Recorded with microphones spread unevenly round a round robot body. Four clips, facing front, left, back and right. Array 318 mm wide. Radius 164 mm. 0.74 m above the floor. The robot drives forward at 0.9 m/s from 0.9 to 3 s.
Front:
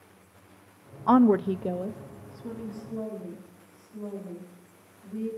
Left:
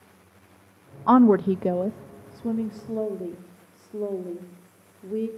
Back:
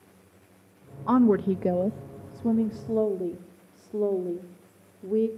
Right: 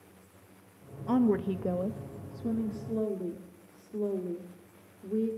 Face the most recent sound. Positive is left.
turn(degrees=170)